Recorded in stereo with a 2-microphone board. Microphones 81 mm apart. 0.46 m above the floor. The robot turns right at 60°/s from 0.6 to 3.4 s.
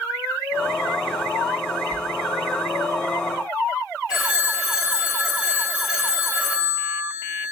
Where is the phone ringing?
10° right (ahead or behind), 0.9 m.